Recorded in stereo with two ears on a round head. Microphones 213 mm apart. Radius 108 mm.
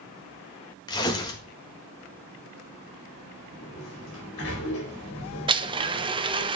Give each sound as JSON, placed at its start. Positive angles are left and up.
{"t": 0.9, "sound": "tearing paper", "side_deg": 15, "distance_m": 1.6}
{"t": 3.5, "sound": "a sliding door", "side_deg": 60, "distance_m": 4.5}
{"t": 5.5, "sound": "a blender", "side_deg": -20, "distance_m": 0.8}